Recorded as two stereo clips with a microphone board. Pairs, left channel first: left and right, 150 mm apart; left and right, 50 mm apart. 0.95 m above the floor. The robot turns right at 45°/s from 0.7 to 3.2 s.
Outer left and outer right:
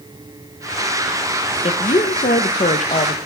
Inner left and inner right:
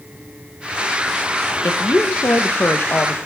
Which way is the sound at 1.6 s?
55° left.